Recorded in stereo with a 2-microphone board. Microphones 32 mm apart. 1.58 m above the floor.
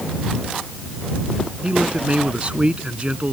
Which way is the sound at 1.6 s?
35° right (ahead or behind).